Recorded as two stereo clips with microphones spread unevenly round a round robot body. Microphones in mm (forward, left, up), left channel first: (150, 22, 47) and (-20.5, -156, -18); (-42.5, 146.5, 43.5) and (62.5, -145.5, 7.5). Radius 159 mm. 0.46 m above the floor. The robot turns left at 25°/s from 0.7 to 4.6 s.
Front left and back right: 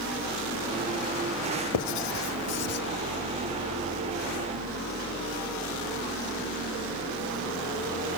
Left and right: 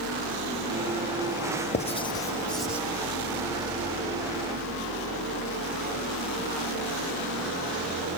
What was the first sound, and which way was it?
Writing, 40° left.